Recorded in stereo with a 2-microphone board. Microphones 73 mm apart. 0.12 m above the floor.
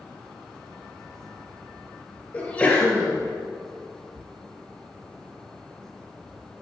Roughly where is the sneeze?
Centre.